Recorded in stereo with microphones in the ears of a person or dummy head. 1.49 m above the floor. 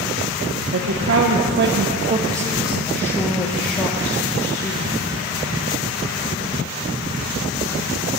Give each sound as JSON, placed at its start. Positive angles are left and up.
{"t": 0.7, "sound": "a woman speaking", "side_deg": -75, "distance_m": 1.1}